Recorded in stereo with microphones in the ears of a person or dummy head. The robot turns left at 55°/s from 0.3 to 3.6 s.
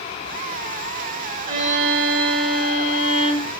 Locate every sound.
1.5 s a violin: 50° right, 2 m; by 3.5 s 165° right, 2 m